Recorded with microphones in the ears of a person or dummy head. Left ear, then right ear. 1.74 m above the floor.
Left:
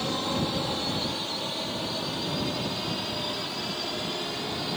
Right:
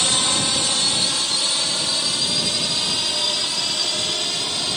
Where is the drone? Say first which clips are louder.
Right 10 dB; 60° right (ahead or behind); by 4.8 s 45° right (ahead or behind).